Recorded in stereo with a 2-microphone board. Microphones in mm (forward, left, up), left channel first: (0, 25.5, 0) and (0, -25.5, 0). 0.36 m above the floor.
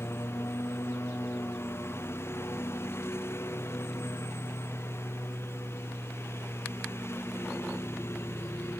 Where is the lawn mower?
55° left (ahead or behind).